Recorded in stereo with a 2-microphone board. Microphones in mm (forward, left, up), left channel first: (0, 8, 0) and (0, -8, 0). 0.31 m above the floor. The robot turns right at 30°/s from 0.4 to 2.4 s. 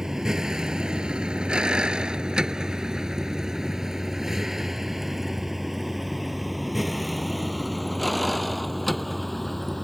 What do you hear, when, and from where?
0.0 s a vehicle: 35° right (ahead or behind); by 9.8 s 10° left (ahead or behind)